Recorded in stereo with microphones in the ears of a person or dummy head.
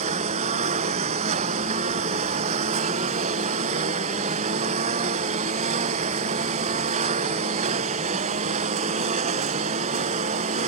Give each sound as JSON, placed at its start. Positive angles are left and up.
{"t": 0.0, "sound": "a lawn mower", "side_deg": -35}